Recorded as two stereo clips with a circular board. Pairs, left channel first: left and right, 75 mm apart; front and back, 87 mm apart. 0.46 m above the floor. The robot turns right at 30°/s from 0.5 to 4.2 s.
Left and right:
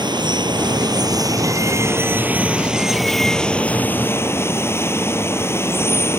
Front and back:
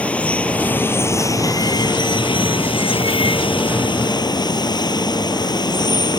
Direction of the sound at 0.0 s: 75° right.